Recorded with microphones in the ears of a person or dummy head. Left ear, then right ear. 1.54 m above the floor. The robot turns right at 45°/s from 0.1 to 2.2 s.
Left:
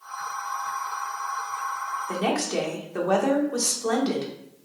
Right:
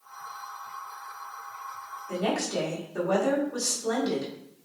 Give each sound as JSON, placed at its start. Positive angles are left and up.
{"t": 2.1, "sound": "a woman speaking", "side_deg": 70, "distance_m": 1.1}